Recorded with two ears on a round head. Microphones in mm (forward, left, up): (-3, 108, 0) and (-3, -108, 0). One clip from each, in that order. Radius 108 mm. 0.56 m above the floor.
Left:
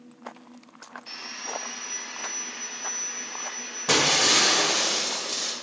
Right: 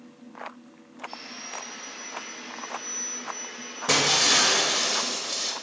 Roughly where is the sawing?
Left.